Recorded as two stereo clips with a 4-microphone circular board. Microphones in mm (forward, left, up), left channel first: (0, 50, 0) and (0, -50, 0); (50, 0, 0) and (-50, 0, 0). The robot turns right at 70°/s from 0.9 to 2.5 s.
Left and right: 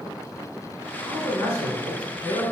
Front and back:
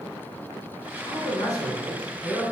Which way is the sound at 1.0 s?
5° left.